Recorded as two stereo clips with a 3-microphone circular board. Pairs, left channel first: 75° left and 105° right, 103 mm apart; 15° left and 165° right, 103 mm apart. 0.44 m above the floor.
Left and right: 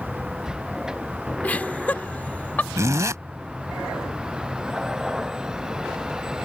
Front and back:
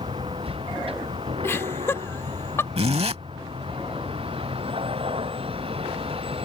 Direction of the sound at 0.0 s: 170° left.